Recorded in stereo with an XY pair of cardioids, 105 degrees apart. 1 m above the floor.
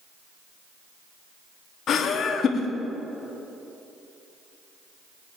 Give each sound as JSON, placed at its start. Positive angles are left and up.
{"t": 1.9, "sound": "laughter", "azimuth_deg": 60, "distance_m": 2.5}